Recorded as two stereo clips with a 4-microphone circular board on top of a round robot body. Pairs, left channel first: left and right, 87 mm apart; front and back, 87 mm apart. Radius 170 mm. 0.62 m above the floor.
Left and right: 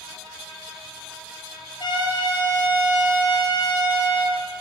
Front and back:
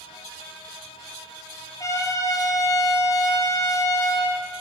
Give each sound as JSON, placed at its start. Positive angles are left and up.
{"t": 1.8, "sound": "a trumpet", "azimuth_deg": 55, "distance_m": 3.5}